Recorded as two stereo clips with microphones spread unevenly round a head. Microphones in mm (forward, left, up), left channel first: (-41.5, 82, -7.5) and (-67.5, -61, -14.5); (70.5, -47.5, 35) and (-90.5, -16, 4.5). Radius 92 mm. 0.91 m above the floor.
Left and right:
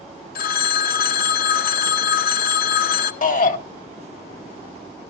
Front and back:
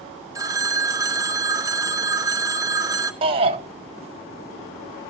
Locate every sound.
0.3 s a phone ringing: 100° left, 0.6 m
3.2 s a shout: 110° left, 1.4 m